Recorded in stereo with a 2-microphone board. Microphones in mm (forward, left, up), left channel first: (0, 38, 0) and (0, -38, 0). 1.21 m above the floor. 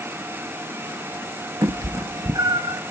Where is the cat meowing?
60° right (ahead or behind), 0.8 m; by 2.8 s 50° right (ahead or behind), 1.0 m.